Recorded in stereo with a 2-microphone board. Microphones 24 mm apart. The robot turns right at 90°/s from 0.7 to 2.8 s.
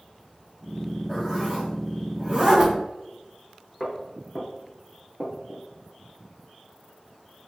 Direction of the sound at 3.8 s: Centre (ahead or behind).